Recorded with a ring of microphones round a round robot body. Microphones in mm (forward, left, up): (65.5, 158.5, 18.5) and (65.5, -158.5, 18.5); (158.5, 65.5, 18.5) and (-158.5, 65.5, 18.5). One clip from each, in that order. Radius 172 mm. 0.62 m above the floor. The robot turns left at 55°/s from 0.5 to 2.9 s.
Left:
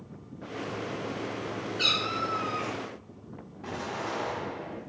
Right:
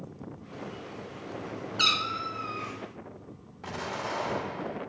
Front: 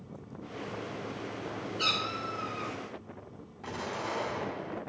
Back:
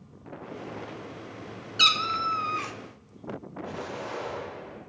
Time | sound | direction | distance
1.8 | a cat meowing | 155° right | 0.7 m
3.6 | an explosion | 30° right | 2.5 m